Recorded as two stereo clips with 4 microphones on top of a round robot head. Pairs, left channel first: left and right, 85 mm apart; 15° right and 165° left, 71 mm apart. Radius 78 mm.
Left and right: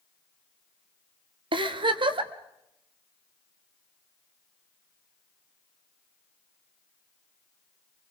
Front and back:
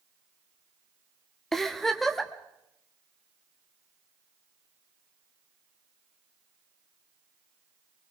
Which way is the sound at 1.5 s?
100° right.